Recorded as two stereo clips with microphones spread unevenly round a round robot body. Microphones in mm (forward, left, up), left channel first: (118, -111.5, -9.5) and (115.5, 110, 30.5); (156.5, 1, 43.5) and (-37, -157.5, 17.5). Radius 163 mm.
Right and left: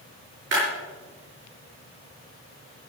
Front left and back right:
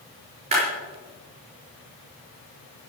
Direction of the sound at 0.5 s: 150° left.